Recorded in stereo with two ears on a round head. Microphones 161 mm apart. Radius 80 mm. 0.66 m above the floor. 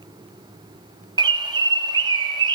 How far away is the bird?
About 0.6 m.